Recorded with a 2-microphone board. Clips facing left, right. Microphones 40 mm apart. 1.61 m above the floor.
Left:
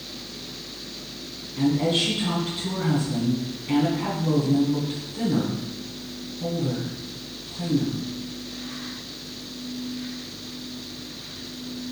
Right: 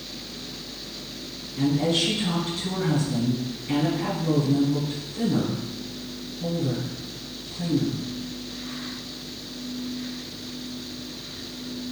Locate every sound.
1.6 s a woman speaking: 10° left (ahead or behind), 1.1 m